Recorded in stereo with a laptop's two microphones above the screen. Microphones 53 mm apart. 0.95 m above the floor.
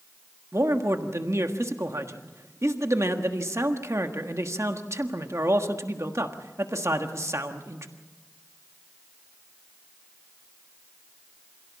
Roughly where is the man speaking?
Right.